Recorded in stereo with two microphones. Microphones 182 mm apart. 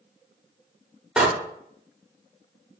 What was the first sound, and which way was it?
A door slam, 5° right (ahead or behind).